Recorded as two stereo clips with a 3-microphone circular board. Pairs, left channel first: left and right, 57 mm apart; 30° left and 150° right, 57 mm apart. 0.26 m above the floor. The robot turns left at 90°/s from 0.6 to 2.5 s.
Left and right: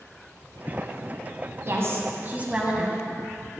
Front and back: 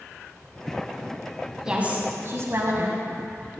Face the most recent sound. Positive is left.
turn(degrees=-155)